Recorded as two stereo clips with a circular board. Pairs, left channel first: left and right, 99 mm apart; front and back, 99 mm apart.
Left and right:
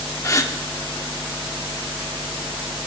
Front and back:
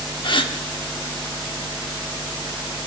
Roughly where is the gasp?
Ahead left.